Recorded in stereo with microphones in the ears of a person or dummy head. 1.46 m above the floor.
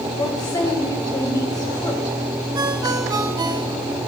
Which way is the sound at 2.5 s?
20° right (ahead or behind).